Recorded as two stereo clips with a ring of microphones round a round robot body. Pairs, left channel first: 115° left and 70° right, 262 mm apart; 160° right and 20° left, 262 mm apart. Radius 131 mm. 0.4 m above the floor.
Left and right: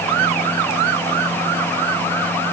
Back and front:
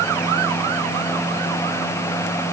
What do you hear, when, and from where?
Only background noise.